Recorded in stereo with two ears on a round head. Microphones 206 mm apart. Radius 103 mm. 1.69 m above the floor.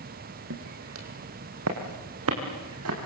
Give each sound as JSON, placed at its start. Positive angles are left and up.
{"t": 0.5, "sound": "footsteps", "side_deg": -60, "distance_m": 4.0}